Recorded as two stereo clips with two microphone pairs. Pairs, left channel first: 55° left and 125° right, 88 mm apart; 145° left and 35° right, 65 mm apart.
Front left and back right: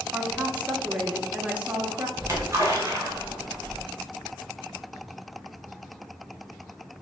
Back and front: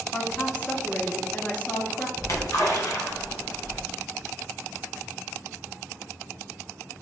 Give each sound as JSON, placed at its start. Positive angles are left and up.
{"t": 0.1, "sound": "a woman speaking", "azimuth_deg": 175, "distance_m": 0.7}
{"t": 2.2, "sound": "a splash", "azimuth_deg": 175, "distance_m": 1.2}